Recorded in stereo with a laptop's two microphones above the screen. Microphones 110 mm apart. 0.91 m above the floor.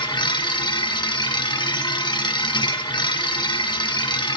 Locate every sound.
0.0 s a machine running: 45° left (ahead or behind), 1.0 m